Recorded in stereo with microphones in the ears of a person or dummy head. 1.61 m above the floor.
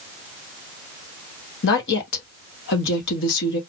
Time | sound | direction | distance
1.6 | a woman speaking | 60° left (ahead or behind) | 1.4 m